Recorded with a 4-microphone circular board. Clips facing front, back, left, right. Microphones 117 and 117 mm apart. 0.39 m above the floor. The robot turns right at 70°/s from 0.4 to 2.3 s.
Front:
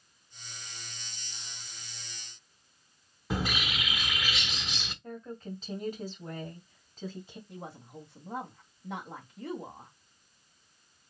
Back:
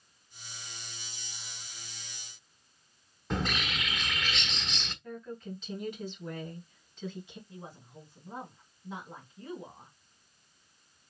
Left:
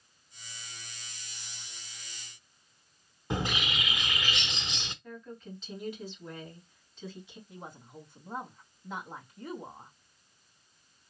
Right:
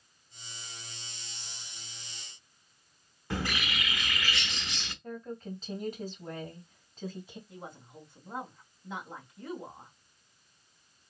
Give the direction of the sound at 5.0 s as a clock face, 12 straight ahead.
2 o'clock.